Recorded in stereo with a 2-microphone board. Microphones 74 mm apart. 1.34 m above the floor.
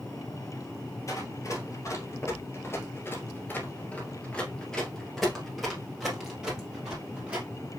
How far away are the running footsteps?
About 2.0 m.